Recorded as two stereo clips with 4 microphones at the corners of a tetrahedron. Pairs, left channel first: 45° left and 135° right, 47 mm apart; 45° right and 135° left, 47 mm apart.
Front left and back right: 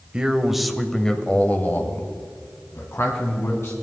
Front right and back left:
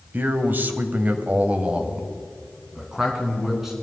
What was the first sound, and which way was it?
A man speaking, 160° left.